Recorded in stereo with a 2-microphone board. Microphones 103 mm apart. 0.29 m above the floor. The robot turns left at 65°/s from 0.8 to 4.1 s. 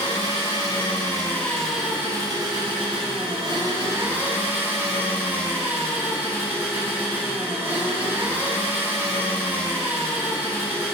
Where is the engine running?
55° left, 1.0 m; by 10.9 s 160° right, 1.0 m.